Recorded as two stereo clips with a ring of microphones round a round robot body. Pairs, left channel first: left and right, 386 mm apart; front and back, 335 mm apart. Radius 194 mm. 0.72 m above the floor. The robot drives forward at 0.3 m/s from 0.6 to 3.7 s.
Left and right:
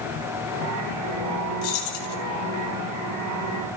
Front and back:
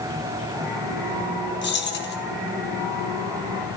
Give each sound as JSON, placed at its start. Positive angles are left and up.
{"t": 1.6, "sound": "keys jangling", "azimuth_deg": 60, "distance_m": 3.5}